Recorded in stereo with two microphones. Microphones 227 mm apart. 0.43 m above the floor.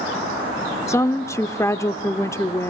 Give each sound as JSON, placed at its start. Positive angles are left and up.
{"t": 0.9, "sound": "a woman speaking", "side_deg": 15, "distance_m": 0.7}